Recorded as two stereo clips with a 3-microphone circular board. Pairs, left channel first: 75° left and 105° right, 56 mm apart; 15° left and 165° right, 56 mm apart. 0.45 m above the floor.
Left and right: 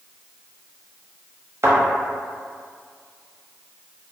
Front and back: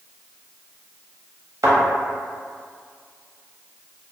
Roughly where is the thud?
Behind right.